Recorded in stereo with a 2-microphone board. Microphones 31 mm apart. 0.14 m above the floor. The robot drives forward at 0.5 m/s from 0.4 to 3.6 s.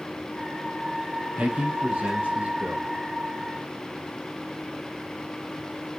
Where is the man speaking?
35° right (ahead or behind), 3.5 m; by 2.9 s 30° right (ahead or behind), 4 m.